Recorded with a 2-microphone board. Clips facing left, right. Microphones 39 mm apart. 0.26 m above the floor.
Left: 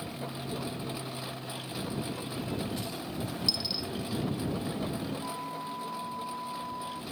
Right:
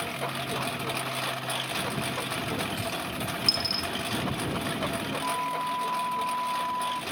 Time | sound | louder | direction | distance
0.0 | a lawn mower | right 7 dB | 85° right | ?
3.5 | a dropped coin | right 4 dB | 20° left (ahead or behind) | ?
5.2 | a flute | right 8 dB | 55° right (ahead or behind) | ?